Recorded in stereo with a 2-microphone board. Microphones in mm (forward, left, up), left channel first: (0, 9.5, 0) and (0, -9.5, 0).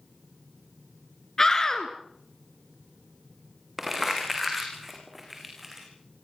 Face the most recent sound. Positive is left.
turn(degrees=-5)  # may be behind; listen again after turning